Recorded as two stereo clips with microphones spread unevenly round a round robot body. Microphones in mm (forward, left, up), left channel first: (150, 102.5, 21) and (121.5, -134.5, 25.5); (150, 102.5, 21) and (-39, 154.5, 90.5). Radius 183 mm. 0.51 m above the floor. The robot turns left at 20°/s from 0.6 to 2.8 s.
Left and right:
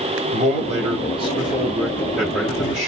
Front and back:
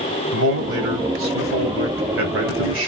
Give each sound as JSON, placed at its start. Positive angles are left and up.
{"t": 0.3, "sound": "a man speaking", "azimuth_deg": -155, "distance_m": 1.9}